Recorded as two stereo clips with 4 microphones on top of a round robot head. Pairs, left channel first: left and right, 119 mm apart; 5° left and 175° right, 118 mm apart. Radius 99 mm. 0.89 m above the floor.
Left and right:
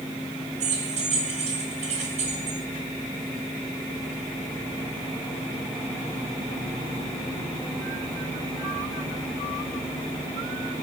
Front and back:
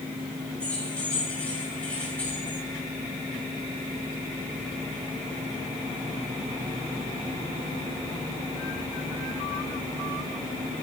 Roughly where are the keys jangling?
Right.